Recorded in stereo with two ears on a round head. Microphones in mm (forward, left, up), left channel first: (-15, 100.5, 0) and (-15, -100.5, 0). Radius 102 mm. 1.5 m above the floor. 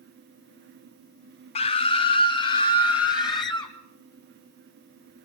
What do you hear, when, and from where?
1.6 s a scream: 25° left (ahead or behind), 0.6 m; by 3.7 s 20° left (ahead or behind), 3.5 m